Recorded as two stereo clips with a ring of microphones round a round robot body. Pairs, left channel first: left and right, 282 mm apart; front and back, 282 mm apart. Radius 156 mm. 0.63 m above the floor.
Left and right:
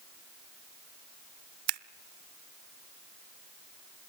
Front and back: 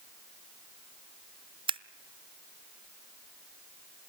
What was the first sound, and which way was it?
Scissors, 105° right.